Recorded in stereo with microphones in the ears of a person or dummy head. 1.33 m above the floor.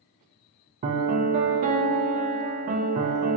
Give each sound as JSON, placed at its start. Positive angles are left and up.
{"t": 0.8, "sound": "a piano", "side_deg": -50, "distance_m": 0.5}